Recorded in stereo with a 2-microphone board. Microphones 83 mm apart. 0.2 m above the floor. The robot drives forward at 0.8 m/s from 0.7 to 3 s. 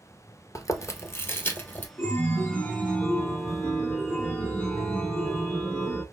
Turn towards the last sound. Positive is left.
turn(degrees=15)  # may be behind; listen again after turning